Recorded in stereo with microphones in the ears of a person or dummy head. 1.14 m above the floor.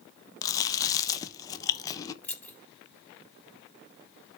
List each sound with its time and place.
0.4 s chewing: 15° left (ahead or behind), 0.6 m
2.2 s keys jangling: 10° left (ahead or behind), 1.1 m